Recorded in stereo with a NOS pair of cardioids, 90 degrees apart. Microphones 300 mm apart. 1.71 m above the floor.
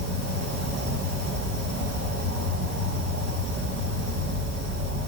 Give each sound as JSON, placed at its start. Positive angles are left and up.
{"t": 0.0, "sound": "an insect", "azimuth_deg": -60, "distance_m": 2.5}